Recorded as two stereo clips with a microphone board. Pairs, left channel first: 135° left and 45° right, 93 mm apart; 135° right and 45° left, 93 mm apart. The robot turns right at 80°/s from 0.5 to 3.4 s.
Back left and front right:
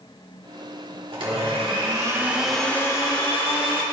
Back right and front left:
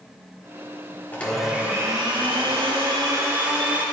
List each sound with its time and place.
1.1 s a blender: 65° right, 1.6 m; by 3.8 s 115° left, 1.6 m